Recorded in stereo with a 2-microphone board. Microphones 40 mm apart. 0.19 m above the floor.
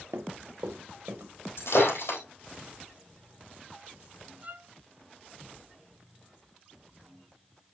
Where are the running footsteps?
75° right (ahead or behind), 1.2 m; by 1.3 s 60° right (ahead or behind), 2.5 m.